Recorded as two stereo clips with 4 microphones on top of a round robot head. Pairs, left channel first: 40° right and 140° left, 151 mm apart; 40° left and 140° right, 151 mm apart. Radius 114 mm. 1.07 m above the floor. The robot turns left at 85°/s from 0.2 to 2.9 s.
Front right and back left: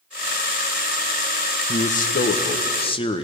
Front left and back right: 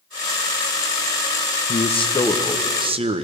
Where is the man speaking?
10° left, 0.8 m; by 3.2 s 90° right, 0.8 m.